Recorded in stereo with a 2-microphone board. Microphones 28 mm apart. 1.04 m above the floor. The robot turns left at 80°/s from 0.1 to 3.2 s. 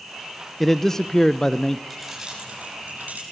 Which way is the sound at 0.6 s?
10° left (ahead or behind).